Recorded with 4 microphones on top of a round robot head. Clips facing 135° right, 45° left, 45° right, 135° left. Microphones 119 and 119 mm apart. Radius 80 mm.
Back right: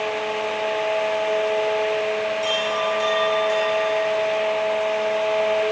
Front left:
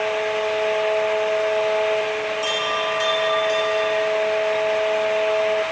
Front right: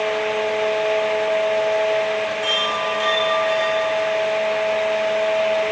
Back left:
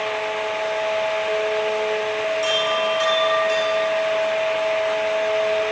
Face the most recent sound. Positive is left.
turn(degrees=80)